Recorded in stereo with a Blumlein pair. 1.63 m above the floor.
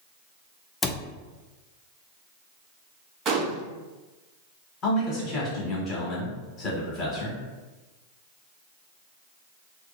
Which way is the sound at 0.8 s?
15° left.